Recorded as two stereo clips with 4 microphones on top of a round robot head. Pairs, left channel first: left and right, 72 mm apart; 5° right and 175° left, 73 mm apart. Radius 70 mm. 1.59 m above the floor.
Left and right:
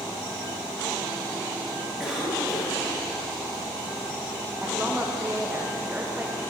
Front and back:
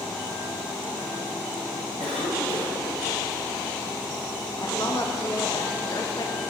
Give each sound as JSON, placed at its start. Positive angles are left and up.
{"t": 2.0, "sound": "a cough", "azimuth_deg": -175, "distance_m": 2.5}
{"t": 4.6, "sound": "a woman speaking", "azimuth_deg": -20, "distance_m": 0.5}